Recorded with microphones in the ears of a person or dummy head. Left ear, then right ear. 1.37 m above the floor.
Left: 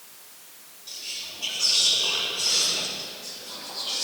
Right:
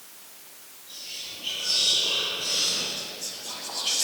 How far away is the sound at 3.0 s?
About 1.3 m.